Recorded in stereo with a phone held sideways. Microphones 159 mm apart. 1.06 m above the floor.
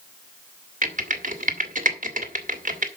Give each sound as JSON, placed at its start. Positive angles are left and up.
{"t": 0.8, "sound": "typing on a keyboard", "side_deg": -55, "distance_m": 1.4}